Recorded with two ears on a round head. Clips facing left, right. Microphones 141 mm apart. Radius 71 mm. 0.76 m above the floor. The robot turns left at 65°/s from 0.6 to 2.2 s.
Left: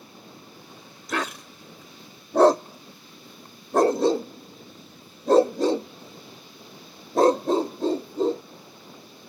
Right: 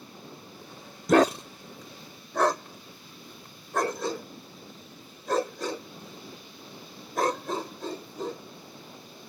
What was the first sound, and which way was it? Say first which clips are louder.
A dog barking: right 10 dB; 45° right (ahead or behind).